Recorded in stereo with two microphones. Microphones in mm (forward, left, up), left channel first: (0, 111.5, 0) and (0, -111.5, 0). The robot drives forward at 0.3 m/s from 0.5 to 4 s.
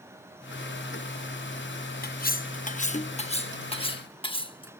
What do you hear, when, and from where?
2.0 s cutlery clinking: 45° left (ahead or behind); by 4.7 s 25° left (ahead or behind)